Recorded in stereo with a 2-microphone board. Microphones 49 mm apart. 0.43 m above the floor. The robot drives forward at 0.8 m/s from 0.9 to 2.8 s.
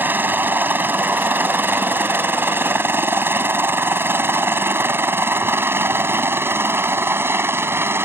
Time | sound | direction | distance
0.0 | a helicopter | 40° right (ahead or behind) | ?